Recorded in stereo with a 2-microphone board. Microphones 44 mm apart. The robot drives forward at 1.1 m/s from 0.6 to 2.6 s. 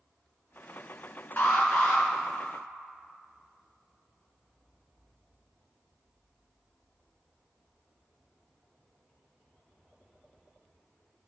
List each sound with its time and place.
1.4 s an alarm: 45° left (ahead or behind), 2.0 m; by 2.0 s 35° left (ahead or behind), 2.5 m